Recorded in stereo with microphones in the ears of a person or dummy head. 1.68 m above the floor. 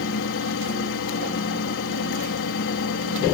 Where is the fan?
60° left (ahead or behind).